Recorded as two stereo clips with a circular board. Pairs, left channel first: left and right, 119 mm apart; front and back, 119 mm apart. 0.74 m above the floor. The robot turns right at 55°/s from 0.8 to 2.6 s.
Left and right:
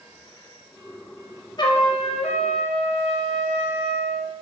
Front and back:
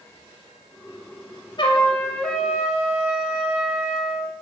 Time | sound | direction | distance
1.6 | a trumpet | 45° left | 2.5 m